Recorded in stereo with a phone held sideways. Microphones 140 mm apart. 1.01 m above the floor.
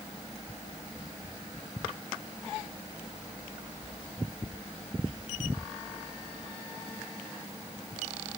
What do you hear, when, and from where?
Only background noise.